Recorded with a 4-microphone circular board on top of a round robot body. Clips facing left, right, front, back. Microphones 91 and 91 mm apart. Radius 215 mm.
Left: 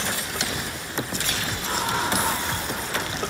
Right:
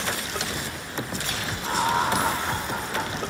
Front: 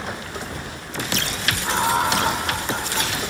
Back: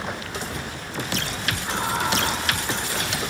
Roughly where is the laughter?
Ahead right.